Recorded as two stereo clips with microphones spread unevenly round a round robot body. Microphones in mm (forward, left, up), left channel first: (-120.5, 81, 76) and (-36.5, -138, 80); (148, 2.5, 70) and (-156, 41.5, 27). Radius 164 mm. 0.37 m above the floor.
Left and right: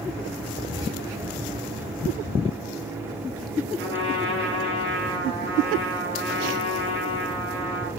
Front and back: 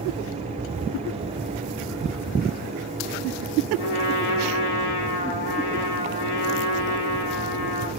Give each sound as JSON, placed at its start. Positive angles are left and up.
{"t": 3.8, "sound": "a trumpet", "azimuth_deg": -15, "distance_m": 3.0}